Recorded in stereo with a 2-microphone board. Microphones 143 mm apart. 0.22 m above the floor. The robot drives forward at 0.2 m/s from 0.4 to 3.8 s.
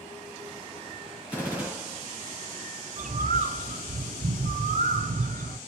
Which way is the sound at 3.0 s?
60° right (ahead or behind).